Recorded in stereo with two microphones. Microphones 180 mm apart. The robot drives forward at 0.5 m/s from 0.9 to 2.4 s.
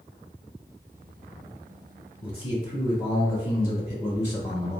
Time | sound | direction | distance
2.2 | a man speaking | 30° left (ahead or behind) | 2.0 m